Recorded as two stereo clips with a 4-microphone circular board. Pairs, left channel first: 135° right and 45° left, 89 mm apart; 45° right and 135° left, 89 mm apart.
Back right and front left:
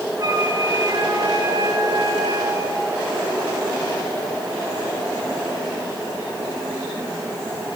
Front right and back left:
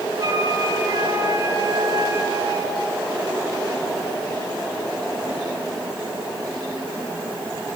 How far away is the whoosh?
I don't hear a whoosh.